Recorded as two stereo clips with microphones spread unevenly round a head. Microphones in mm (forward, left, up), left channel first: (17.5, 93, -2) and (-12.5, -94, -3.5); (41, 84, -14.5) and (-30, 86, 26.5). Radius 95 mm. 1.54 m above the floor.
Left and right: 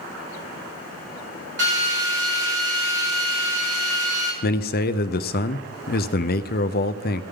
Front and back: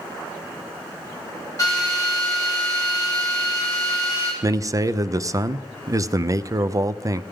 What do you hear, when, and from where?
1.6 s a drill: 70° right, 3 m
4.4 s a man speaking: 120° left, 0.6 m